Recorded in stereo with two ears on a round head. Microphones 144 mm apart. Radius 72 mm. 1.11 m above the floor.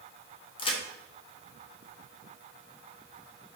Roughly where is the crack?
Left.